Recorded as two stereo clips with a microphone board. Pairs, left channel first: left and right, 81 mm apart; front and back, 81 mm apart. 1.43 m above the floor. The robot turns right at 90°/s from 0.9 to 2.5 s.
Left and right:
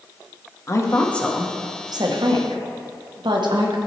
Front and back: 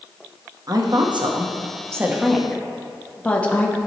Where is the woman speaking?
145° left, 0.9 m; by 3.8 s 70° right, 0.9 m.